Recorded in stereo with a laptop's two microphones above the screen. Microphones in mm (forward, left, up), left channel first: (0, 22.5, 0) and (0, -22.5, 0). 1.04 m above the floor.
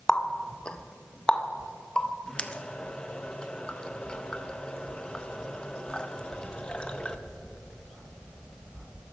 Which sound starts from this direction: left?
A running tap, at 0.1 s.